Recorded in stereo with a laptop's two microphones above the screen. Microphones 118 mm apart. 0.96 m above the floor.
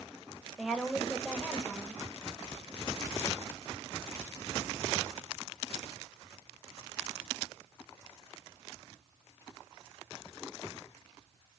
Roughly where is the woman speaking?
Centre.